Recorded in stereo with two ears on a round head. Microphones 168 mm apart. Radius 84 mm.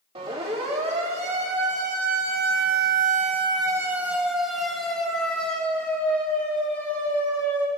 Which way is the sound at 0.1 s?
30° right (ahead or behind).